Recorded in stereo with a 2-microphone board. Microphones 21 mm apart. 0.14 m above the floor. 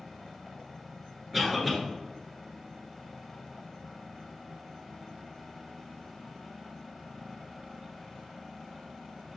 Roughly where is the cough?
Centre.